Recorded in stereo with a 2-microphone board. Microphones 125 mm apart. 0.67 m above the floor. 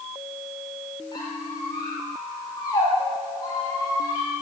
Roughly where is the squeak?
Left.